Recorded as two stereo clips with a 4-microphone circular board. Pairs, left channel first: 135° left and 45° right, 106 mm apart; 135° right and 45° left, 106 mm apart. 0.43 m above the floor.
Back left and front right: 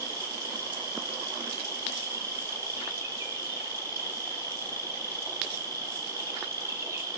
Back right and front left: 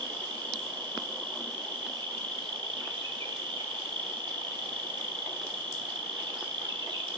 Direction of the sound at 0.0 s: 10° left.